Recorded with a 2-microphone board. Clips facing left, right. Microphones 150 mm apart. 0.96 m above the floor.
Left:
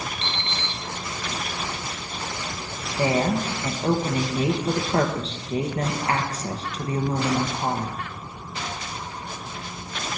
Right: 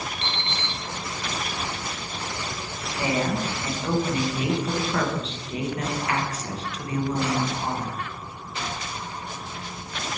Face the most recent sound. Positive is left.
turn(degrees=35)  # may be behind; listen again after turning